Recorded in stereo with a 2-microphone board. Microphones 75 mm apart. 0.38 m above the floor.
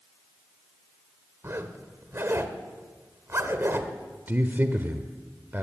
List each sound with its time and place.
1.4 s a zipper: 35° right (ahead or behind), 1.7 m
4.3 s a man speaking: 30° right (ahead or behind), 1.1 m